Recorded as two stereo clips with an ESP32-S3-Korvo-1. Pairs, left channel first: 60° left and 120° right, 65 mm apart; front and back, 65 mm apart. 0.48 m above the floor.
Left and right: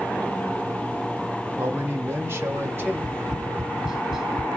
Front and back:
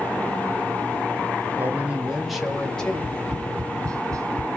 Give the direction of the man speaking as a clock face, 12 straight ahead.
5 o'clock.